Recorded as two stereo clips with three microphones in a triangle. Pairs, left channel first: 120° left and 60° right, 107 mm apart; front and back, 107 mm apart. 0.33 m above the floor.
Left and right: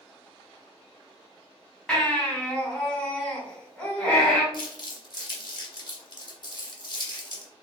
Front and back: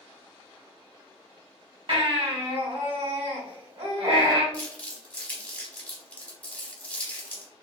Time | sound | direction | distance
1.9 | a baby crying | 155° right | 1.3 m
4.5 | crumpling | 75° left | 0.8 m